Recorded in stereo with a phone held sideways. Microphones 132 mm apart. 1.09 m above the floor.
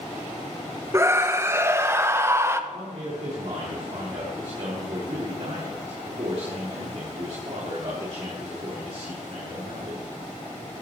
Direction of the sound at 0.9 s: 20° right (ahead or behind).